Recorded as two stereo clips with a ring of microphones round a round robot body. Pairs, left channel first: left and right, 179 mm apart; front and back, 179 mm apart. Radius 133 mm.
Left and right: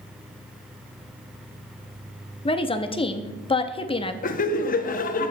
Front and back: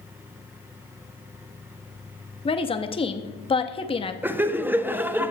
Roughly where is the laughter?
Left.